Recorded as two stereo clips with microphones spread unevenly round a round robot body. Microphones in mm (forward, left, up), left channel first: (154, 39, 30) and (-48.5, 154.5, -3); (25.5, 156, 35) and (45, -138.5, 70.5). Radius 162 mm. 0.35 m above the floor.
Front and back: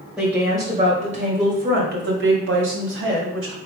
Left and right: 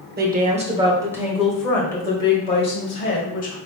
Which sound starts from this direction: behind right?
A woman speaking, at 0.2 s.